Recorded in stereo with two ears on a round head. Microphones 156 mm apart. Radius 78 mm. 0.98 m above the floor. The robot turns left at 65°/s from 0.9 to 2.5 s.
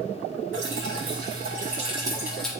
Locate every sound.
0.5 s dripping: 80° right, 4.5 m; by 2.5 s 175° left, 4.5 m